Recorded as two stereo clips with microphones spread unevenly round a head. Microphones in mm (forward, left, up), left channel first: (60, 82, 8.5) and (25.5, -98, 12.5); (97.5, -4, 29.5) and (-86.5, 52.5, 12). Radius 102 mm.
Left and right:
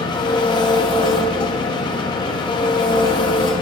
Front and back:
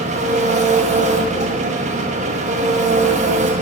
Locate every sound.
0.0 s an engine running: 130° left, 0.9 m